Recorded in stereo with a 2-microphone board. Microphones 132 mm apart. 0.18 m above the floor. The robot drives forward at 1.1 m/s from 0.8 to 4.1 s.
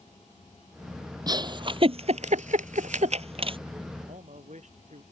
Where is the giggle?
30° right (ahead or behind); by 3.6 s 40° right (ahead or behind).